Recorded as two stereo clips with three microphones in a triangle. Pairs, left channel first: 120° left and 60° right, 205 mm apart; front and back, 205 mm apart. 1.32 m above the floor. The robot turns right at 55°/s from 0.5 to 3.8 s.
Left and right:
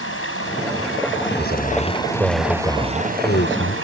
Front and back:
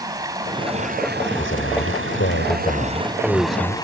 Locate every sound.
0.0 s running water: 105° left; by 3.9 s 70° right
1.4 s a man speaking: 25° right; by 3.8 s 105° left